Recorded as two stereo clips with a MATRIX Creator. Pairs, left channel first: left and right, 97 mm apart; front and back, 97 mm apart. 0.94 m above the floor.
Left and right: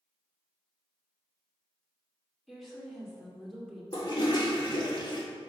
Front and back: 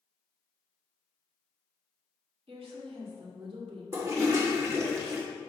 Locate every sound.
2.5 s a woman speaking: straight behind, 2 m
3.9 s a toilet flushing: 120° left, 1.7 m